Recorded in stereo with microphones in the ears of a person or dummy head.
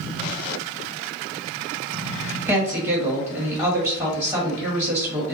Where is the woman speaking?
15° right (ahead or behind), 1.4 m.